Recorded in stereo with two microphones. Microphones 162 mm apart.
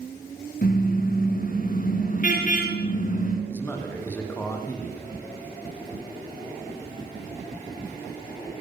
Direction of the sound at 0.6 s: 60° left (ahead or behind).